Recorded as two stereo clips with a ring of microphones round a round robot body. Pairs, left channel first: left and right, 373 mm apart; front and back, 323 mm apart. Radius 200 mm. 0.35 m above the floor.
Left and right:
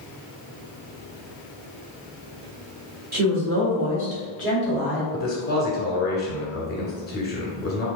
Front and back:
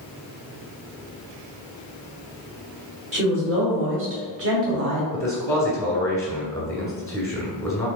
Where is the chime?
I don't hear a chime.